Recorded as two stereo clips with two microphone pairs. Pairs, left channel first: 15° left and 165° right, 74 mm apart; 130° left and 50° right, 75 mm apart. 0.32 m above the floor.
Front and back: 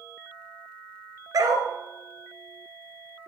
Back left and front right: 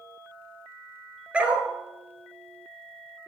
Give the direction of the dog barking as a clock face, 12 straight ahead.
4 o'clock.